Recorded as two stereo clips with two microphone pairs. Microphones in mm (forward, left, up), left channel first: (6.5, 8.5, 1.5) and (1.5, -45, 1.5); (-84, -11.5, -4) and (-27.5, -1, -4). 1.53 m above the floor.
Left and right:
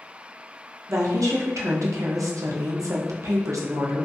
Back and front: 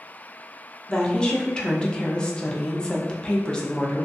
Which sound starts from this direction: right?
A woman speaking, at 0.9 s.